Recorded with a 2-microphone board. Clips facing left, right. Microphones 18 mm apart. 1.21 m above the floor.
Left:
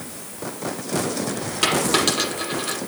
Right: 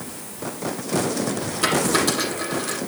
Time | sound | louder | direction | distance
1.6 | a dropped coin | left 1 dB | 55° left (ahead or behind) | 6 m